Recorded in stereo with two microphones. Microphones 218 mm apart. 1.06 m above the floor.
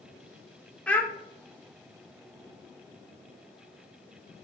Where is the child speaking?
5° left (ahead or behind), 0.6 m.